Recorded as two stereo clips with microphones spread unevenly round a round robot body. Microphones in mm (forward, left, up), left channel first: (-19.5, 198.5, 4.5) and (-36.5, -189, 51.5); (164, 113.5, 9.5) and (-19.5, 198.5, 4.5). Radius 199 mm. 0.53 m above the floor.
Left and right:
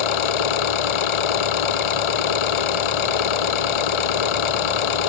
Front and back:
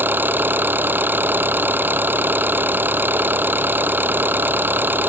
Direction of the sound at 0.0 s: 75° left.